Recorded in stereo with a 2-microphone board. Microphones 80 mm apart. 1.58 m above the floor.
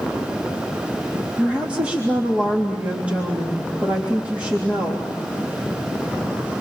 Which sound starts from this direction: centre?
A woman speaking, at 1.4 s.